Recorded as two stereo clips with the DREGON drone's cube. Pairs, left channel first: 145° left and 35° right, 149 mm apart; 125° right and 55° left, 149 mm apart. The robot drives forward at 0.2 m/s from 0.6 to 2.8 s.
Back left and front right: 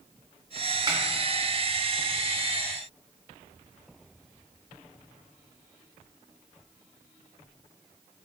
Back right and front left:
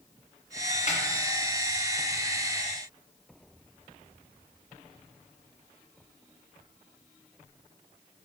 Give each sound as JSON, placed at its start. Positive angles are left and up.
{"t": 0.9, "sound": "a snare drum", "azimuth_deg": -95, "distance_m": 0.6}